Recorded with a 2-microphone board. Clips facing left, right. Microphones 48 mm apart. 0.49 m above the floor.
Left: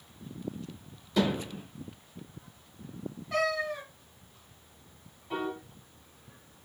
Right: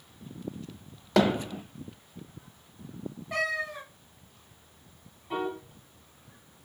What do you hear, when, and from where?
1.2 s hammering: 70° right (ahead or behind), 0.7 m
3.3 s a cat meowing: 15° right (ahead or behind), 1.8 m
5.3 s a piano: 5° right (ahead or behind), 1.1 m